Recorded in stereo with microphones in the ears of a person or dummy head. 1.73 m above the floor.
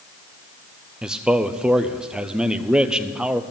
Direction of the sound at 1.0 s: Centre (ahead or behind).